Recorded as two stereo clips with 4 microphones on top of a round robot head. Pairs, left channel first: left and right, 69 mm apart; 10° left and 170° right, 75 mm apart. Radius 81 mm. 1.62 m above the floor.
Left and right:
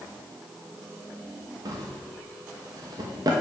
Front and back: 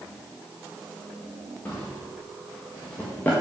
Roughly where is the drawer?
Ahead right.